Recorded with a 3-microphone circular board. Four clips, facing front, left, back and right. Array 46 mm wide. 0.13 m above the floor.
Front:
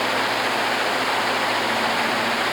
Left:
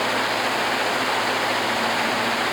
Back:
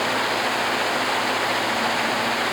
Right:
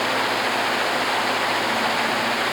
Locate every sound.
Only background noise.